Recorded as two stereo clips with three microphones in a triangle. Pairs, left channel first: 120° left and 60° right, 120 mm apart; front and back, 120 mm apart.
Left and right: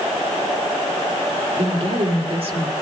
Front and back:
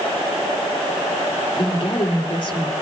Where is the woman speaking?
35° right, 3 m.